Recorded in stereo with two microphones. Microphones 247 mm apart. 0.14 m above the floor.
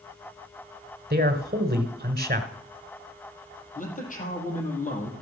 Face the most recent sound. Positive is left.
turn(degrees=30)  # may be behind; listen again after turning